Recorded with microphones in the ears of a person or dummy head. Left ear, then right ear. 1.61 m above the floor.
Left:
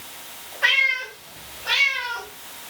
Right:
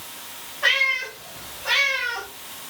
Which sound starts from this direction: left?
A cat meowing, at 0.6 s.